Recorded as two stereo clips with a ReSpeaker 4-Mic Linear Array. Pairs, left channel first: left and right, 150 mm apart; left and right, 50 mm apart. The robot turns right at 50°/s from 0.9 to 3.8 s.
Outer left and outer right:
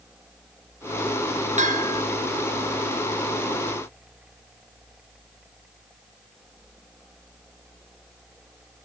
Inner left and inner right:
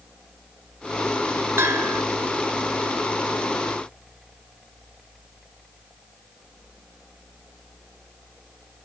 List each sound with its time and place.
1.6 s a bell: 50° right (ahead or behind), 0.9 m; by 2.0 s 75° right (ahead or behind), 0.9 m